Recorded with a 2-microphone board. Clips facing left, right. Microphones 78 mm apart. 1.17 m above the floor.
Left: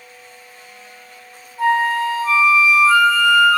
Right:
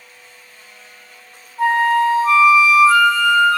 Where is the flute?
25° right (ahead or behind), 2.5 m.